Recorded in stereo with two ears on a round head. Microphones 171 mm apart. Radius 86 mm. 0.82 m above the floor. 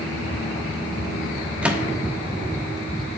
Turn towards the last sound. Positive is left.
turn(degrees=-5)  # may be behind; listen again after turning